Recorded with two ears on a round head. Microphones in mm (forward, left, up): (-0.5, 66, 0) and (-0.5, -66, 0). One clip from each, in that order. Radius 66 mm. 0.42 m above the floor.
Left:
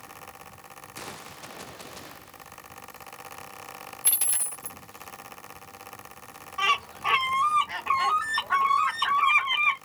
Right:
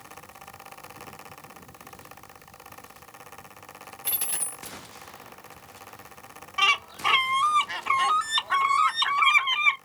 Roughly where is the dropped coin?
Left.